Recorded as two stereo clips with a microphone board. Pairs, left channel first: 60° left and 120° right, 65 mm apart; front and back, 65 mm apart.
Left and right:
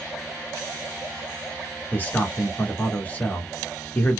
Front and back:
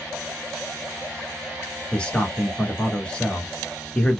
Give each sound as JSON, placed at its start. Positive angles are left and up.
{"t": 1.9, "sound": "a man speaking", "azimuth_deg": 50, "distance_m": 1.1}